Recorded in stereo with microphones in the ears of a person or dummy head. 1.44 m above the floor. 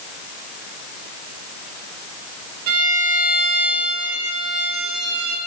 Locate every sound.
2.7 s a violin: 65° right (ahead or behind), 2.5 m